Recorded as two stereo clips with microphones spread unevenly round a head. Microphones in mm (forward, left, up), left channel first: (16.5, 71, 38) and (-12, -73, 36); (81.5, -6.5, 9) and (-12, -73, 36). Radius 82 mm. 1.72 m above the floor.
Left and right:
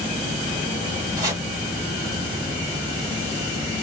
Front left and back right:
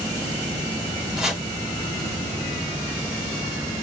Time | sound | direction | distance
1.2 | chopping | 115° right | 1.6 m